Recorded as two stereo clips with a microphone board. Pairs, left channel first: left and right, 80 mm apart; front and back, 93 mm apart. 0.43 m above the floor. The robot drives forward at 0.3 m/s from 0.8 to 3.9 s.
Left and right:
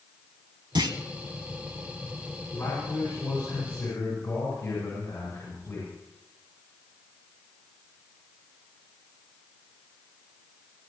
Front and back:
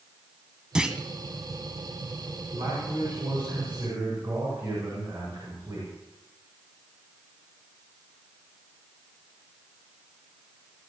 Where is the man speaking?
160° left, 7.5 m.